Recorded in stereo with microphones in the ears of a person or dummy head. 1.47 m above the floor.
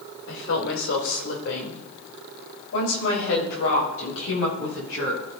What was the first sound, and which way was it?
A woman speaking, 85° left.